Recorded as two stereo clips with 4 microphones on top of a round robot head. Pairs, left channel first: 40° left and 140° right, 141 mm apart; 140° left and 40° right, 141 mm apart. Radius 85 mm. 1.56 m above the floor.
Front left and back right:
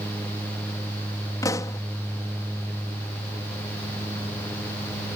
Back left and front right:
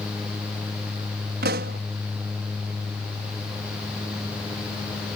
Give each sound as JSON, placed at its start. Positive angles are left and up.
{"t": 1.4, "sound": "a pop", "azimuth_deg": -30}